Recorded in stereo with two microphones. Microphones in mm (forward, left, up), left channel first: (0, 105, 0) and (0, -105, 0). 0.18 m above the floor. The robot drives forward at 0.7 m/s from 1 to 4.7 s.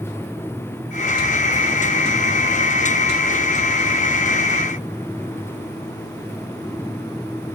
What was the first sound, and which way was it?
Only background noise.